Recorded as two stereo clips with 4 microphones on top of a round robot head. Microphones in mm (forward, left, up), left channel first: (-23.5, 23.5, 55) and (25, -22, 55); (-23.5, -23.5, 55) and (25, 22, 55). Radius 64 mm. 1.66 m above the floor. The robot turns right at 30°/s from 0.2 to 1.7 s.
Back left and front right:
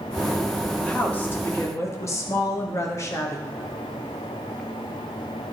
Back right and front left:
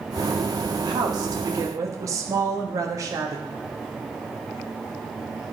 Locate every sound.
0.8 s a woman speaking: 60° left, 1.2 m; by 3.5 s 85° left, 1.2 m